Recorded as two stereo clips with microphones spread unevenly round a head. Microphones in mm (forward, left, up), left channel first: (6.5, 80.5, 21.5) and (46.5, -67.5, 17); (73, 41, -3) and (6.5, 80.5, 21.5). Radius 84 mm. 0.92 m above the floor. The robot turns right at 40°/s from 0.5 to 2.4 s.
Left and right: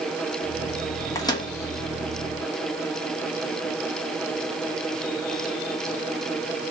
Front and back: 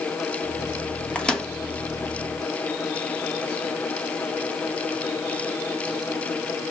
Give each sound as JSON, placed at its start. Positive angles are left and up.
{"t": 1.1, "sound": "a microwave", "azimuth_deg": 35, "distance_m": 1.1}